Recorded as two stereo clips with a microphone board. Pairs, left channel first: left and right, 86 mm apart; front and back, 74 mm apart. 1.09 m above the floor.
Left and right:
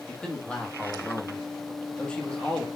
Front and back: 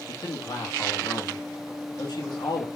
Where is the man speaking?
15° left, 2 m.